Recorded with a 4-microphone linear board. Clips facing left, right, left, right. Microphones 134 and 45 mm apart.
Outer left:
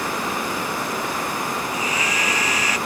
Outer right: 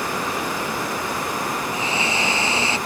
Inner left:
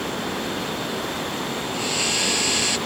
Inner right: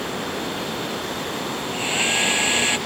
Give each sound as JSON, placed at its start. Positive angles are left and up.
{"t": 1.7, "sound": "a hair dryer", "side_deg": -30}